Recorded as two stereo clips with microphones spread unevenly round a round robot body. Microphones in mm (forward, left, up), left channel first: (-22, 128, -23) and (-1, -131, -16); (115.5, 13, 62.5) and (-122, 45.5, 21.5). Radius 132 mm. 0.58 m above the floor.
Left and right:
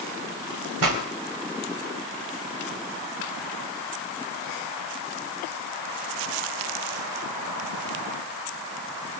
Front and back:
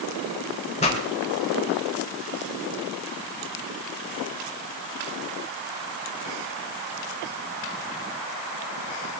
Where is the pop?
75° right, 3.5 m.